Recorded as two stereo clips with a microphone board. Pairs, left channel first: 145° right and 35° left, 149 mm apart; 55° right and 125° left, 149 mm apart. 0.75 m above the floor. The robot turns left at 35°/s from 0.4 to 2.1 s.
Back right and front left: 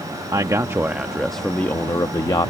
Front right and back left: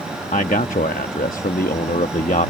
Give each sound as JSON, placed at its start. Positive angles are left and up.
{"t": 0.3, "sound": "a man speaking", "azimuth_deg": -25}